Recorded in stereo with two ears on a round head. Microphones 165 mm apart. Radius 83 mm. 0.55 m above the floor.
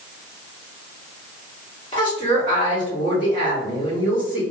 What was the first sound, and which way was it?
A woman speaking, 25° left (ahead or behind).